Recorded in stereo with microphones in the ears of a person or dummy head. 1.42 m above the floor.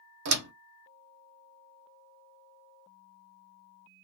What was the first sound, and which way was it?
A door slam, 65° right (ahead or behind).